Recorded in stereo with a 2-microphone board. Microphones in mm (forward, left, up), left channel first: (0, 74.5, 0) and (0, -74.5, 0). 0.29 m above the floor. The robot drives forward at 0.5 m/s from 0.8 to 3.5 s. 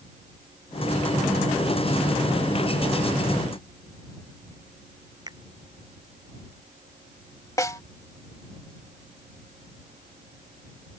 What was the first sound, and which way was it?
A finger snap, 25° right (ahead or behind).